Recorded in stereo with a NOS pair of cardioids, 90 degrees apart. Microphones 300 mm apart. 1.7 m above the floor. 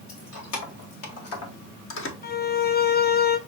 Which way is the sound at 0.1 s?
65° left.